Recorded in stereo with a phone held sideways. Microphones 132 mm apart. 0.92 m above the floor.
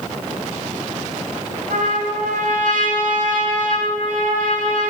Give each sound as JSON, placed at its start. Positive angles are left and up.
{"t": 1.7, "sound": "a trumpet", "side_deg": -80, "distance_m": 7.0}